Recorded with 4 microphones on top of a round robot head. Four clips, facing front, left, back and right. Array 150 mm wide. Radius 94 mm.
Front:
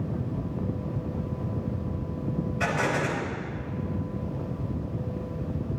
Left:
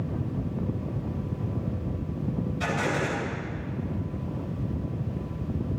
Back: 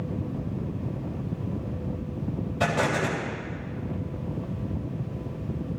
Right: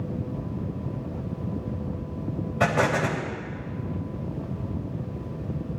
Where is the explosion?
105° right, 3.5 m.